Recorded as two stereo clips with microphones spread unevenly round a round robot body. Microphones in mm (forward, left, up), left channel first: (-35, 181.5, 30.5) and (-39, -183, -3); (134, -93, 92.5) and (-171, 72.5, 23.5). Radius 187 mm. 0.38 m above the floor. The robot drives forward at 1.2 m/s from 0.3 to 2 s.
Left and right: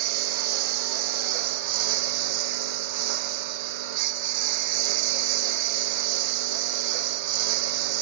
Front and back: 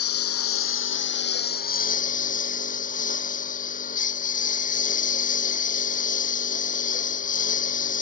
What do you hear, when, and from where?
0.0 s a lawn mower: 80° right; by 8.0 s 95° right